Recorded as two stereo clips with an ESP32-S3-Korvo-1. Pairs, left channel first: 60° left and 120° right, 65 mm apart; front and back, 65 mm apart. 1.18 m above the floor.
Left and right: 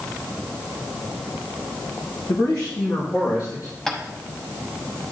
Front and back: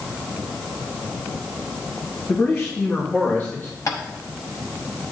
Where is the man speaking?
50° left, 1.0 m.